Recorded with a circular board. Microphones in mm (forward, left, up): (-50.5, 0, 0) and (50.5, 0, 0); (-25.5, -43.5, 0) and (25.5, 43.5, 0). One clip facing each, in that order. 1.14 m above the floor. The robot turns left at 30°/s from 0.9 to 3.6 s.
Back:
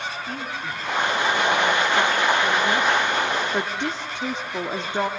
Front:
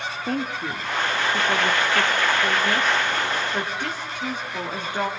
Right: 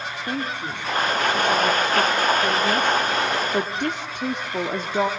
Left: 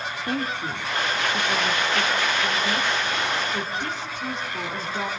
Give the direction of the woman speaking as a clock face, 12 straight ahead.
1 o'clock.